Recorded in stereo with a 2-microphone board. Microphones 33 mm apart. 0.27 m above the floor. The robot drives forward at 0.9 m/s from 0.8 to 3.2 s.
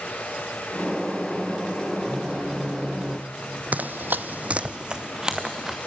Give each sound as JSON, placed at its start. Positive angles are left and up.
{"t": 2.1, "sound": "a phone buzzing", "side_deg": -45, "distance_m": 5.5}
{"t": 3.7, "sound": "running footsteps", "side_deg": -55, "distance_m": 0.8}